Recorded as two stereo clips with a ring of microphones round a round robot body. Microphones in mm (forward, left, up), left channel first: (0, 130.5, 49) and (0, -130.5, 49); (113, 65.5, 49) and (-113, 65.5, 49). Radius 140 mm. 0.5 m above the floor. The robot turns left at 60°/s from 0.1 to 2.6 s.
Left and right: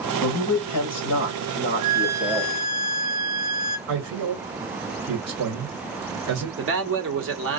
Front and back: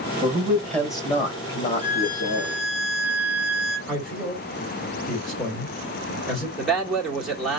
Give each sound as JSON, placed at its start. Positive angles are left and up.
{"t": 0.2, "sound": "a man speaking", "azimuth_deg": 115, "distance_m": 2.5}
{"t": 1.8, "sound": "a violin", "azimuth_deg": 0, "distance_m": 2.5}
{"t": 3.9, "sound": "a man speaking", "azimuth_deg": -90, "distance_m": 1.5}
{"t": 6.6, "sound": "a man speaking", "azimuth_deg": -90, "distance_m": 1.5}